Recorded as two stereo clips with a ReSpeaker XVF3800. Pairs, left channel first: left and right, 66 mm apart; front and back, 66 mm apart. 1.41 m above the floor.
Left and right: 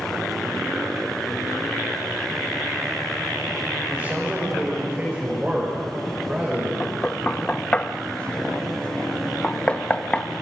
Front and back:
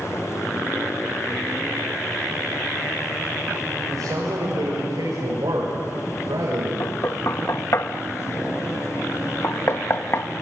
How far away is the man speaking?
About 6.5 m.